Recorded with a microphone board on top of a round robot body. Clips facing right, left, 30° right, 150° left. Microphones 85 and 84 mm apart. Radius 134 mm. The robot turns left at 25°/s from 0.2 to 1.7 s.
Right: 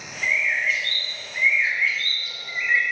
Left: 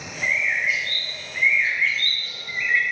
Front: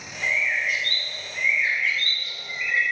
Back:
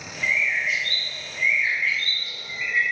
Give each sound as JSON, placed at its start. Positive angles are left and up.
{"t": 0.2, "sound": "a bird", "azimuth_deg": 25, "distance_m": 0.9}